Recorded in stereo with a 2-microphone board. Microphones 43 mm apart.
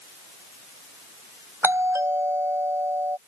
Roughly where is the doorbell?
Right.